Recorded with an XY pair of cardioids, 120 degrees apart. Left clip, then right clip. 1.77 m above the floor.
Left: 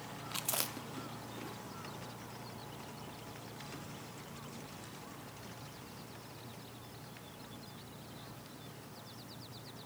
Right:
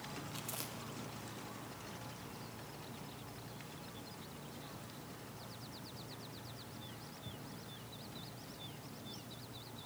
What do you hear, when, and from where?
0.3 s chewing: 55° left, 1.0 m